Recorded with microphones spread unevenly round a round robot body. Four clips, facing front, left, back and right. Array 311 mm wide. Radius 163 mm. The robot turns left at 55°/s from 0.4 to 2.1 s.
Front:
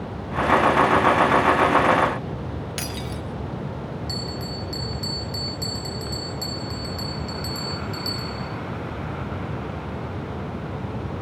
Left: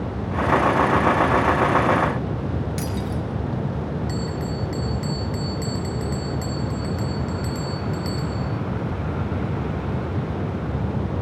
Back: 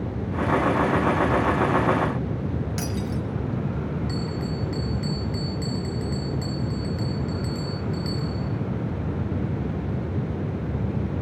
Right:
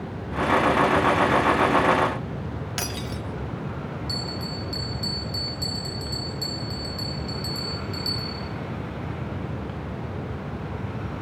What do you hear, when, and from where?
2.8 s breaking glass: 70° right, 3.5 m
4.1 s a bell: 60° left, 4.5 m